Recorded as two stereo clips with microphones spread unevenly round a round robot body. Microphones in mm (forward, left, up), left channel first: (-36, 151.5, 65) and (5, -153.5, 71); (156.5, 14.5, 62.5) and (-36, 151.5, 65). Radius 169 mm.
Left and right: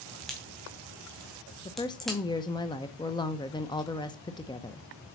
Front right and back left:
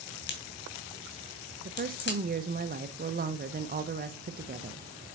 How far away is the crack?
About 2.5 m.